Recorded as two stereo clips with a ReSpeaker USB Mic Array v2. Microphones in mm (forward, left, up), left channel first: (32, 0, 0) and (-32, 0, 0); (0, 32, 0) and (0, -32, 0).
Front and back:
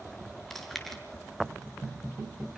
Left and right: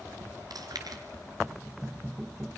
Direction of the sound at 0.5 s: 85° right.